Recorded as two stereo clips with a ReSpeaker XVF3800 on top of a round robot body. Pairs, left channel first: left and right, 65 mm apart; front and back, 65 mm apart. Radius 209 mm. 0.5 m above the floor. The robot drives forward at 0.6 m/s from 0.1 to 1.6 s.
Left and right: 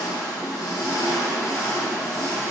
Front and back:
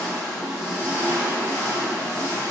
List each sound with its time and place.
0.0 s an engine running: 80° left, 0.9 m; by 2.5 s 130° left, 1.1 m